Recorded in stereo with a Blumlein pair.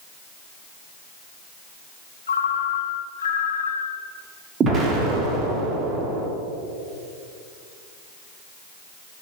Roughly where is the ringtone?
Left.